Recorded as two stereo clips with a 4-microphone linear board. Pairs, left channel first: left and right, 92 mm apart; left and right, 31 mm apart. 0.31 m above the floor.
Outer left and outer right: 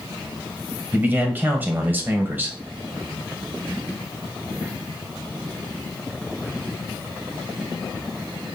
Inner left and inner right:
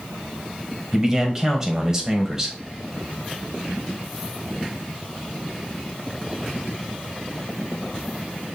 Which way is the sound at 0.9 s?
20° right (ahead or behind).